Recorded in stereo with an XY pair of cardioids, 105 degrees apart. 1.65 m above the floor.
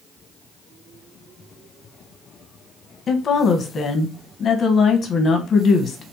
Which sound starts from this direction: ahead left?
A woman speaking, at 3.1 s.